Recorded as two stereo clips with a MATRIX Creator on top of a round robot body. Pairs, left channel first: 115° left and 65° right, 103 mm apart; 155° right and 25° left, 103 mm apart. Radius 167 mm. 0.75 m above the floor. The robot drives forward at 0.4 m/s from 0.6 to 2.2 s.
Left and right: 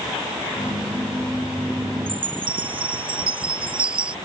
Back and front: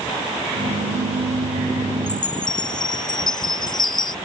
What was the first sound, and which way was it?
A chime, 110° right.